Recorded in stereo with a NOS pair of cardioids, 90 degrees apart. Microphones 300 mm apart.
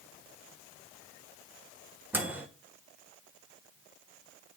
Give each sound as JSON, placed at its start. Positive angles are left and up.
{"t": 2.1, "sound": "a microwave", "azimuth_deg": -5, "distance_m": 0.9}